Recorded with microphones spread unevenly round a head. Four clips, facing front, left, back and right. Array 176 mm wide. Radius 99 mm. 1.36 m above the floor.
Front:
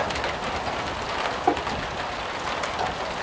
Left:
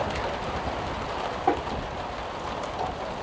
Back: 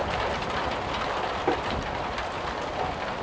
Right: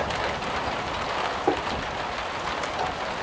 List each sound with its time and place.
1.5 s tapping: 65° right, 1.1 m